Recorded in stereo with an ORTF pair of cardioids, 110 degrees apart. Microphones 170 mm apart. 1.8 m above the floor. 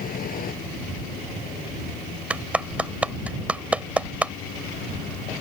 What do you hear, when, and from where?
0.0 s a vehicle: 60° left; by 5.4 s 75° left
2.3 s a clap: 10° right